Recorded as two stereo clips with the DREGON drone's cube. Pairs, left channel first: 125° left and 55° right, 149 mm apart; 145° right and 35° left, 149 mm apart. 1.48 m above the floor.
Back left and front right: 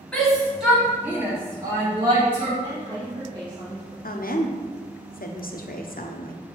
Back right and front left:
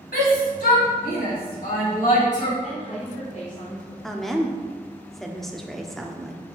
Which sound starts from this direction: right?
A woman speaking, at 2.6 s.